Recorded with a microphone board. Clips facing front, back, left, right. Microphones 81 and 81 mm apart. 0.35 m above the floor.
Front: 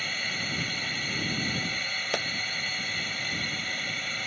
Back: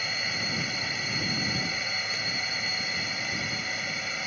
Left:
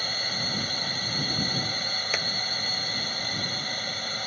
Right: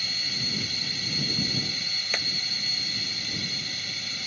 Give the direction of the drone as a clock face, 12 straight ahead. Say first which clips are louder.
Back 1 dB, left 4 dB; 9 o'clock.